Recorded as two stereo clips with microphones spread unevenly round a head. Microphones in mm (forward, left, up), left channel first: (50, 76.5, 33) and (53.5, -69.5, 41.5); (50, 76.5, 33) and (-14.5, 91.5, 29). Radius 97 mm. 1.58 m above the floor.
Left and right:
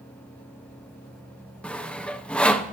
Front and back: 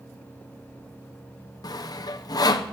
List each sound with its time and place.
1.6 s sawing: 10° left, 0.8 m